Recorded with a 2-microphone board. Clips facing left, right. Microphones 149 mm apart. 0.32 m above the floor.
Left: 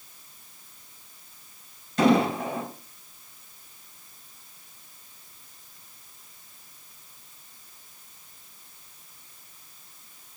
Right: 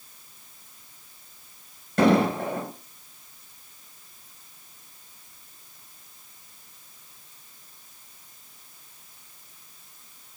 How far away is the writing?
I don't hear writing.